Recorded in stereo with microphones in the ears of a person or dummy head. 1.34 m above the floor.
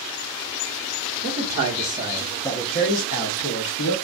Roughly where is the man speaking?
Right.